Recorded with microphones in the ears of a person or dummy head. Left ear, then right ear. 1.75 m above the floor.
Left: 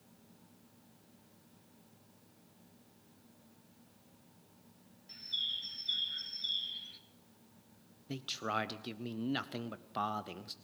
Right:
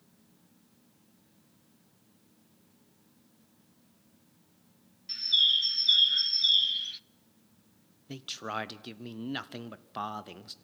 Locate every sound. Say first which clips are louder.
0.0 s a fan: left 2 dB; 40° left (ahead or behind), 10 m
5.1 s a bird: right 13 dB; 40° right (ahead or behind), 0.5 m
8.1 s a man speaking: even; 10° right (ahead or behind), 0.5 m